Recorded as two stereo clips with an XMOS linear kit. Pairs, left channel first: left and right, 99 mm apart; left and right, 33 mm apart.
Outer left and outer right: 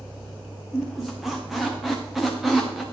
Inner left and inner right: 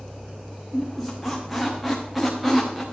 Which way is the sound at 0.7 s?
Centre (ahead or behind).